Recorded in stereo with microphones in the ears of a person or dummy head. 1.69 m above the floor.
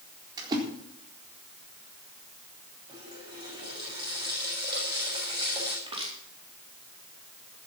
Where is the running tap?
25° right (ahead or behind), 6.5 m.